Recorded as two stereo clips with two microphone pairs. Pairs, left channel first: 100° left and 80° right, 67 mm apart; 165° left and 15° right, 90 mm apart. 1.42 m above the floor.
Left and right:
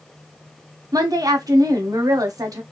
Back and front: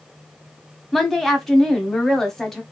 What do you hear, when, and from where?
0.9 s a woman speaking: 110° right, 0.9 m